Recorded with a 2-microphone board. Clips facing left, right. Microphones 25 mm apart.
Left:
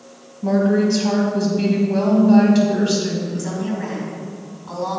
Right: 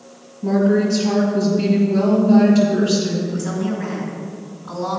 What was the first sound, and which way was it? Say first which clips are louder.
A woman speaking: even; 30° left (ahead or behind).